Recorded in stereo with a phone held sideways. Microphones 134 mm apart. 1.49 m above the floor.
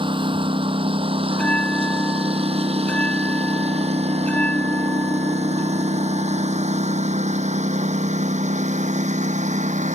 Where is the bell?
10° left (ahead or behind).